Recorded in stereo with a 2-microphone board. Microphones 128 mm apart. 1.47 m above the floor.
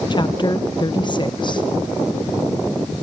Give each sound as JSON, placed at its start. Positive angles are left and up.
{"t": 0.1, "sound": "a woman speaking", "side_deg": 35, "distance_m": 1.5}